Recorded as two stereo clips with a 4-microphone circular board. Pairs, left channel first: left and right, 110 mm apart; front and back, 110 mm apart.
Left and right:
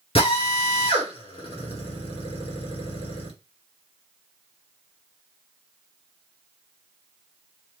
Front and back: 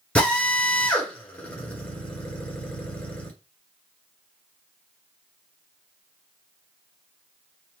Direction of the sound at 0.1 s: 75° left.